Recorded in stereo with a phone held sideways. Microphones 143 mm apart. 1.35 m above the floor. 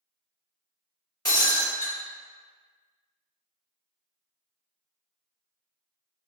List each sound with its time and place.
1.2 s breaking glass: 25° left (ahead or behind), 1.2 m